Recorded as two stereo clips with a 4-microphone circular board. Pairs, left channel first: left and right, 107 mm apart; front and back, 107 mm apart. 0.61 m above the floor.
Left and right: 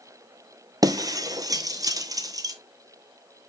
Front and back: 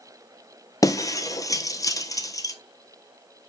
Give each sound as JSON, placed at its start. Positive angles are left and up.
{"t": 0.8, "sound": "breaking glass", "azimuth_deg": -45, "distance_m": 0.9}